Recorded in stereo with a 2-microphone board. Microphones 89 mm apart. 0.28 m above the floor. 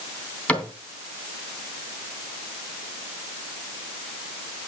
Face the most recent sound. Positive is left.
turn(degrees=15)  # may be behind; listen again after turning